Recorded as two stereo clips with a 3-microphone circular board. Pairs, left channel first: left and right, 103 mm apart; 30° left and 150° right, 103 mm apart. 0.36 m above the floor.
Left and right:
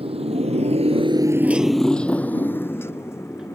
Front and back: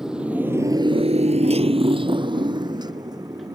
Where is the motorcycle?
65° right; by 3.6 s 155° left.